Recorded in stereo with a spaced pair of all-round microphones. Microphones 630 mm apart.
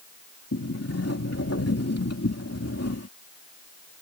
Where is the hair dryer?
I don't hear a hair dryer.